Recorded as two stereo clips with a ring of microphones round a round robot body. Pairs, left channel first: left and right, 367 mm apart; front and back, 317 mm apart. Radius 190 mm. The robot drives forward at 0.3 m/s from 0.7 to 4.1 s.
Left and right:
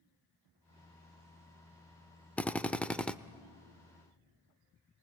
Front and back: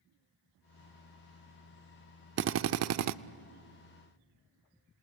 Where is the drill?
175° left, 0.5 m.